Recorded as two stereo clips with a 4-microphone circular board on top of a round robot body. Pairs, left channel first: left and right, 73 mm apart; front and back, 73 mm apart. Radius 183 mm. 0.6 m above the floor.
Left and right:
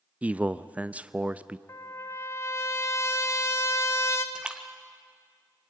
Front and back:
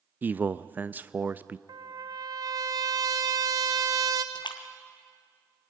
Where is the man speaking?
145° right, 0.7 m.